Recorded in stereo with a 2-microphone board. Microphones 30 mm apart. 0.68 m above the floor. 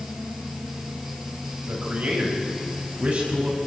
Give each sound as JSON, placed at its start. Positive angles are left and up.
{"t": 1.7, "sound": "a man speaking", "side_deg": -65, "distance_m": 4.5}